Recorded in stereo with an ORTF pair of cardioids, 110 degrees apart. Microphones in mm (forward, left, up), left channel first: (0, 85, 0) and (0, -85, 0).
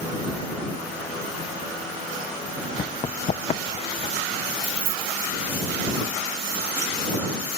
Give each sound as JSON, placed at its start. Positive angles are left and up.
{"t": 2.8, "sound": "running footsteps", "azimuth_deg": 40}
{"t": 4.6, "sound": "keys jangling", "azimuth_deg": -55}